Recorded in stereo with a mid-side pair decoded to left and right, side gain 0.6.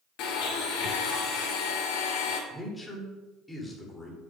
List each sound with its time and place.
0.2 s a blender: 70° left, 1.7 m
2.5 s a man speaking: 10° left, 3 m